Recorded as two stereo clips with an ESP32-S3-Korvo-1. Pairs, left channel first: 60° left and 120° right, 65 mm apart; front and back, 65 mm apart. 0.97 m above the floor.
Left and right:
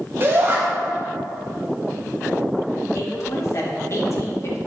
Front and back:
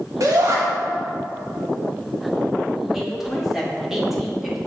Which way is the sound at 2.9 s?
95° left.